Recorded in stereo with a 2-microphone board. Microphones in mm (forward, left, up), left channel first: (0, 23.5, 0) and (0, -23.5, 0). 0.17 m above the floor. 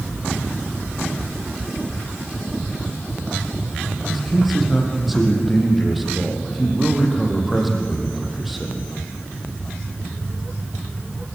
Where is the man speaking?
Centre (ahead or behind), 6 m.